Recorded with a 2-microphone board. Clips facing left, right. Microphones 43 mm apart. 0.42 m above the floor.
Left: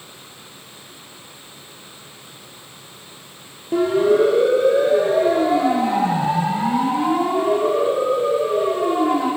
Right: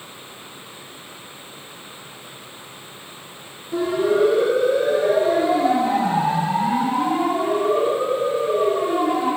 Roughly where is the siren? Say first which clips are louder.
Left 3 dB; left.